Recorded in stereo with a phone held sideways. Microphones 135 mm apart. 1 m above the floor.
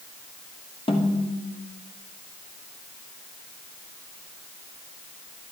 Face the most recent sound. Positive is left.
turn(degrees=45)  # may be behind; listen again after turning